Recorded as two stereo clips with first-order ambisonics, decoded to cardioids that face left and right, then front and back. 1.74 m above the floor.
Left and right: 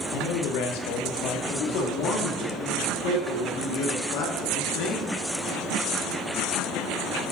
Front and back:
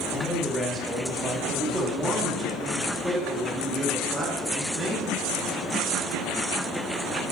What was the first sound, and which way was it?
A man speaking, 80° left.